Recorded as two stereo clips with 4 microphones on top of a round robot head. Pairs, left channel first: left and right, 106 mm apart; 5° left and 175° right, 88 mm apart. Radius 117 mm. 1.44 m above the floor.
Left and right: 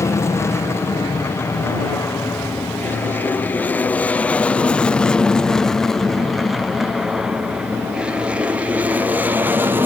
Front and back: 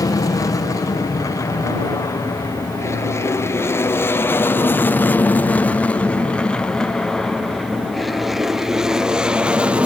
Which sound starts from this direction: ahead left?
An aircraft, at 0.0 s.